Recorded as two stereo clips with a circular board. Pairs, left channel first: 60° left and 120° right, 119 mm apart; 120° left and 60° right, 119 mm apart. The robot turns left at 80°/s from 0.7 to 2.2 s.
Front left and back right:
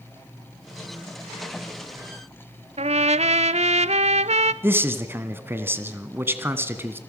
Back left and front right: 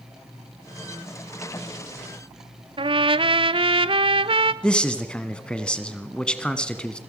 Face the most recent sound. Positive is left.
turn(degrees=-165)